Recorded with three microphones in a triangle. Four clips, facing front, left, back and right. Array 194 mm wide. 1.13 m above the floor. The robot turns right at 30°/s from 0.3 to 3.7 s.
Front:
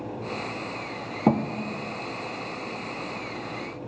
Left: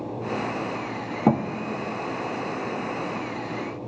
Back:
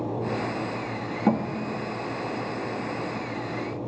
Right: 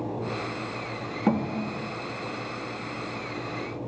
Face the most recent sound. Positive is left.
turn(degrees=135)